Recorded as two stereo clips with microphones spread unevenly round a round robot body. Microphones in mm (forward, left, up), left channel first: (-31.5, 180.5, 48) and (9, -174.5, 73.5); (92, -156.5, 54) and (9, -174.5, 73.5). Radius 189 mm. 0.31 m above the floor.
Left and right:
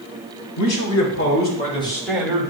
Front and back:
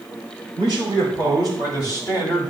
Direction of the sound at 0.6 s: 60° left.